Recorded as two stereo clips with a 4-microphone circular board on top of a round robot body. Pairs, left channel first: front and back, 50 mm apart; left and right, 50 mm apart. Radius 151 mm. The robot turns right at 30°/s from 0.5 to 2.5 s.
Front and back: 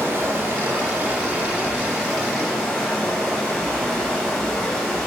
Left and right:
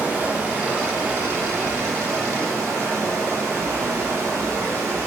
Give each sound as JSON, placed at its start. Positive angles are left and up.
{"t": 0.0, "sound": "running water", "azimuth_deg": -140, "distance_m": 0.8}